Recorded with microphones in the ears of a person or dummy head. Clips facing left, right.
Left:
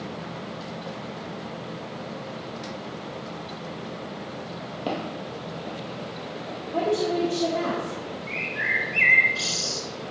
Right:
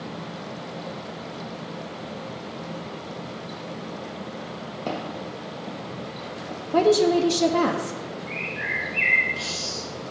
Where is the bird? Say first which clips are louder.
Even; 70° left (ahead or behind), 0.9 m.